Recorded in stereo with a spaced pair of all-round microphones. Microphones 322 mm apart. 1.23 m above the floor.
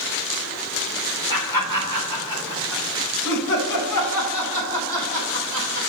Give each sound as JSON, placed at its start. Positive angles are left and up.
{"t": 1.3, "sound": "laughter", "side_deg": 85, "distance_m": 2.0}